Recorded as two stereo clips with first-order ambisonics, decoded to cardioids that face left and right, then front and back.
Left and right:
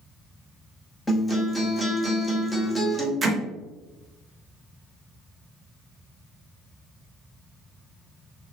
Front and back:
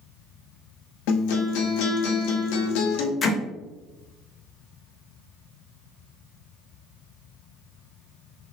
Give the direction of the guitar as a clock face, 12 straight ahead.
12 o'clock.